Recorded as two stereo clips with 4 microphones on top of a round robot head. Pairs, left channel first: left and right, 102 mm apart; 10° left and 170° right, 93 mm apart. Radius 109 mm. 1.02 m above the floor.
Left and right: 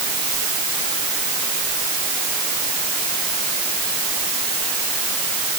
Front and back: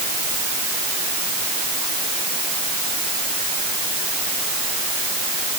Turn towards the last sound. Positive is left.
No sound to turn to.